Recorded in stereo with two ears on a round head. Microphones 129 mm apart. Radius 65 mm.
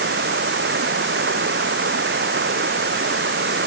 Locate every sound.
0.0 s running water: 90° right